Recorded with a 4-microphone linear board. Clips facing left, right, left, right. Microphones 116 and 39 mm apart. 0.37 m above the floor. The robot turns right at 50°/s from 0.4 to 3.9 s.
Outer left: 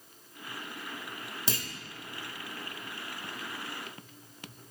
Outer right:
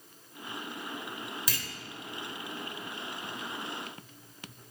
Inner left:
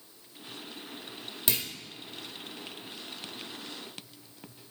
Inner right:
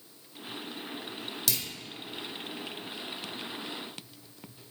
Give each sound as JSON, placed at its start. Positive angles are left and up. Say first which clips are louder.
{"t": 1.5, "sound": "a clunk", "louder": "outer left 3 dB, inner left 3 dB", "side_deg": 30, "distance_m": 0.6}